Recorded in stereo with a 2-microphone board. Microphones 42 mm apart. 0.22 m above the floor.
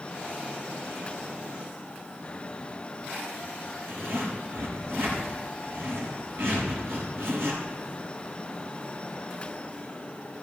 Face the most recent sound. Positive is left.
turn(degrees=-80)